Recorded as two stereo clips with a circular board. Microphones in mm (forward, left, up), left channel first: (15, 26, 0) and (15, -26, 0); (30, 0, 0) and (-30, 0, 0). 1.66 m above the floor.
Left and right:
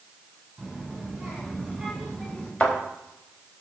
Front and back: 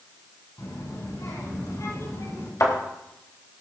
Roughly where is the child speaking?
Ahead.